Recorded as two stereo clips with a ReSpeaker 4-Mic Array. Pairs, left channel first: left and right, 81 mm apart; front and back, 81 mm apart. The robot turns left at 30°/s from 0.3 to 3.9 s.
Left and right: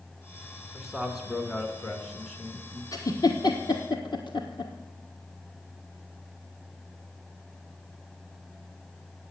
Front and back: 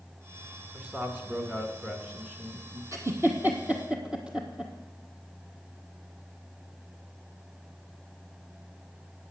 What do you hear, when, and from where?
0.7 s a man speaking: 165° right, 1.2 m; by 2.8 s 135° left, 1.2 m
2.9 s a giggle: 135° left, 1.3 m; by 4.7 s 105° left, 1.3 m